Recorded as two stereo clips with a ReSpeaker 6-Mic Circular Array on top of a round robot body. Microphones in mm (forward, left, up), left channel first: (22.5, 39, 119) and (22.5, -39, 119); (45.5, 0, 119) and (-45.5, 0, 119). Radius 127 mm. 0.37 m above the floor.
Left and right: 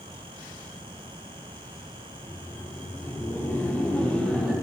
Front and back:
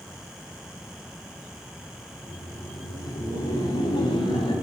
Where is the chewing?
No chewing in this recording.